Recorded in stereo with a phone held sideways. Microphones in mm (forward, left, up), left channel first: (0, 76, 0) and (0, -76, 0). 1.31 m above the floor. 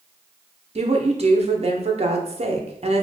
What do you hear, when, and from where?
0.8 s a woman speaking: 45° right (ahead or behind), 0.6 m